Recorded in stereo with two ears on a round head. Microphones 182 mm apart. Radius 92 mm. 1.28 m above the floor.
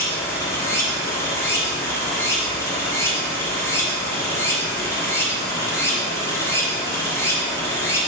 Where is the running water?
15° left (ahead or behind), 0.8 m.